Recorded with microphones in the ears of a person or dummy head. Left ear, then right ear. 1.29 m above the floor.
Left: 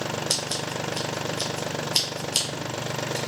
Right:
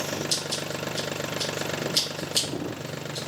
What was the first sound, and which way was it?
Scissors, 45° left (ahead or behind).